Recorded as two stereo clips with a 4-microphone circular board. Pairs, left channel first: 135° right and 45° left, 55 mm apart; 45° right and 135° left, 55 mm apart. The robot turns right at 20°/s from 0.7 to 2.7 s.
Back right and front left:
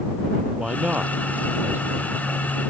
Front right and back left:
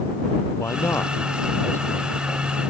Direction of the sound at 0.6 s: 20° right.